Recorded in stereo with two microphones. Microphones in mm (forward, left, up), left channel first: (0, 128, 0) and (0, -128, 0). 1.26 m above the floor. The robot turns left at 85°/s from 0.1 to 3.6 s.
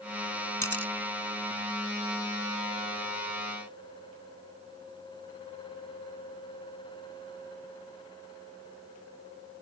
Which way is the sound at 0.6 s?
60° right (ahead or behind).